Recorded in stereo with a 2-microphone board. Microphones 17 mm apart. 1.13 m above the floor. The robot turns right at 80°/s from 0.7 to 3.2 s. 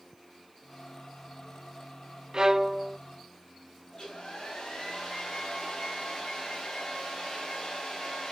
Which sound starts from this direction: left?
A hair dryer, at 3.9 s.